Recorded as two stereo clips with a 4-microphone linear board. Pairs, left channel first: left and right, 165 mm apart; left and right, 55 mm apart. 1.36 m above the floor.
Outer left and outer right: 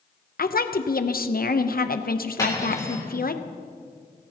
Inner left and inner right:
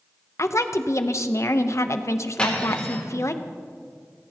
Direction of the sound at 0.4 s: 65° left (ahead or behind).